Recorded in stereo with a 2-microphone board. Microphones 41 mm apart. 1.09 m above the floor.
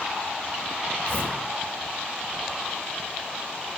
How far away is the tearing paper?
About 4 m.